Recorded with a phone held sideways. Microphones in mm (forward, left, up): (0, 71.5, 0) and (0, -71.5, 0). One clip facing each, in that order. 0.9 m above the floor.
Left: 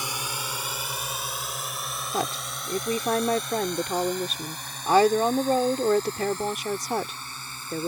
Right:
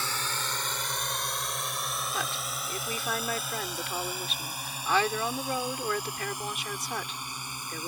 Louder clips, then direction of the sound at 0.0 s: Left 1 dB; 15° left (ahead or behind).